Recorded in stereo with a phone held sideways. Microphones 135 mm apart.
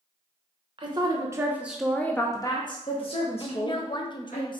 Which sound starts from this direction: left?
A woman speaking, at 3.4 s.